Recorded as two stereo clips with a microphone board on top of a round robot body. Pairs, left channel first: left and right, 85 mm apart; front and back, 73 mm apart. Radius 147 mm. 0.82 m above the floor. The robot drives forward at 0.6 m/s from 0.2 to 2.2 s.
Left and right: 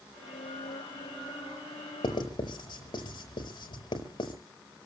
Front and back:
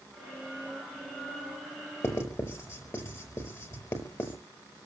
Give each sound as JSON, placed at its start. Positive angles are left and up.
{"t": 2.0, "sound": "writing", "azimuth_deg": 55, "distance_m": 4.5}